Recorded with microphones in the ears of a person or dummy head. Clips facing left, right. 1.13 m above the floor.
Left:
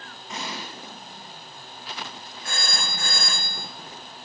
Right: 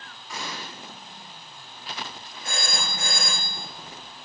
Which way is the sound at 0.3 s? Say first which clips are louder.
Left 2 dB; 30° left (ahead or behind).